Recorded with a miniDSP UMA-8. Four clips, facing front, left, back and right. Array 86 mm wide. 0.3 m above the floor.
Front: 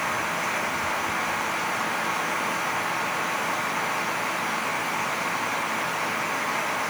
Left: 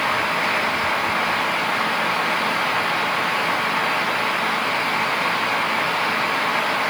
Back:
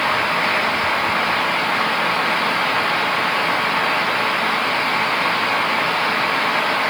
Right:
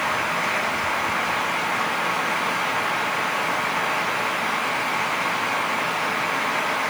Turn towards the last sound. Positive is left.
No sound to turn to.